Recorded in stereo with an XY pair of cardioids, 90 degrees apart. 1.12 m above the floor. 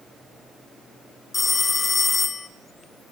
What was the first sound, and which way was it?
A phone ringing, 30° left.